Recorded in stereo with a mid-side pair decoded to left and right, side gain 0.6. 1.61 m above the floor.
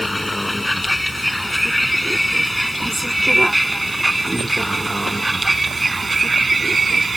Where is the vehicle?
10° left; by 7.2 s 20° right.